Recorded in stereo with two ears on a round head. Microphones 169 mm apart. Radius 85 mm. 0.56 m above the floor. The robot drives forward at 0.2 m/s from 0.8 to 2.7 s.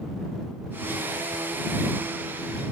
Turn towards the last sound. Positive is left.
No sound to turn to.